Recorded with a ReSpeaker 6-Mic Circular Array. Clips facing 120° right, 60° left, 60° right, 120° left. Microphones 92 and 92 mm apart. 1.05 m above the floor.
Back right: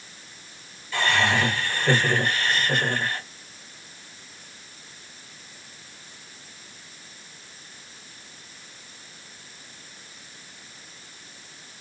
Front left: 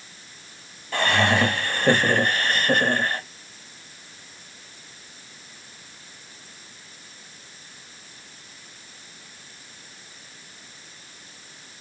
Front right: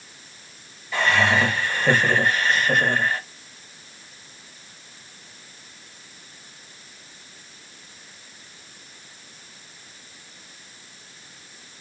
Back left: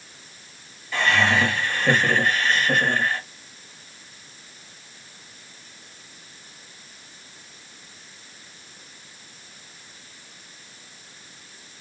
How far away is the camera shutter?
I don't hear a camera shutter.